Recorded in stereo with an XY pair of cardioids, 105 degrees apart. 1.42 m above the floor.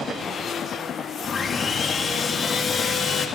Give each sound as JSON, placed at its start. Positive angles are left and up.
{"t": 1.2, "sound": "sawing", "azimuth_deg": 30, "distance_m": 2.0}